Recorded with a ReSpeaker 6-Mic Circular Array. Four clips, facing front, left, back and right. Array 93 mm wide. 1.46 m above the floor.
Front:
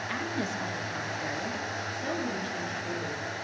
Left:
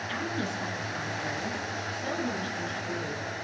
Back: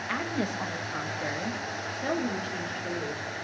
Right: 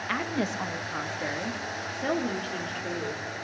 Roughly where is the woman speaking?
Right.